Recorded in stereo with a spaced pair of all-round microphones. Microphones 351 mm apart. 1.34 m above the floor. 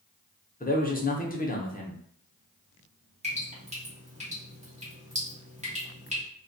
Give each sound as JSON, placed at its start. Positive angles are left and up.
{"t": 0.6, "sound": "a man speaking", "side_deg": 25, "distance_m": 0.6}
{"t": 3.2, "sound": "dripping", "side_deg": -20, "distance_m": 1.1}